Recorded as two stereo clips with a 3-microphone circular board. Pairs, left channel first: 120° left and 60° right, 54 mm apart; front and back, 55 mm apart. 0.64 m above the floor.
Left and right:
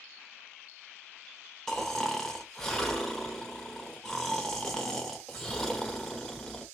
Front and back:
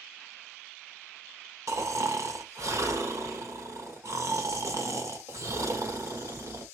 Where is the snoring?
160° right, 1.0 m.